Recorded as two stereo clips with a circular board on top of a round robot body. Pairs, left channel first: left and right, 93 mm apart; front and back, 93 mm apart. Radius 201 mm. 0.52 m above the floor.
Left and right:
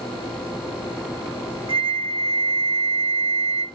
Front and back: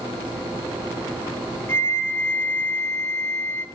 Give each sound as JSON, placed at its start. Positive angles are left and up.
{"t": 1.7, "sound": "a flute", "azimuth_deg": -65, "distance_m": 0.6}